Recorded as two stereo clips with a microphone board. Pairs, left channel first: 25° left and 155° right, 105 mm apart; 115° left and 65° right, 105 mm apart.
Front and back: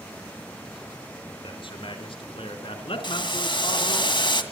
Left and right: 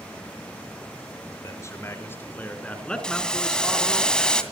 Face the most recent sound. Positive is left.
turn(degrees=35)